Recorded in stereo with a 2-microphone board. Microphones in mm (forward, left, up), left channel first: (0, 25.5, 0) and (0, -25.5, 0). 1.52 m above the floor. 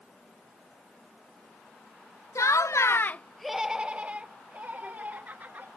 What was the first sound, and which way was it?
Laughter, 85° left.